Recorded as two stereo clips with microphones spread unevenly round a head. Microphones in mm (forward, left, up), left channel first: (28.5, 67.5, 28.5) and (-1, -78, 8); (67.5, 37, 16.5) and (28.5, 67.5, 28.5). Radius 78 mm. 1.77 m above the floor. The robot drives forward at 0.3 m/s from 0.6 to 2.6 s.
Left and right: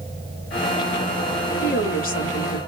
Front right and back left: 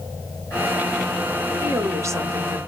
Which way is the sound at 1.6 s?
110° left.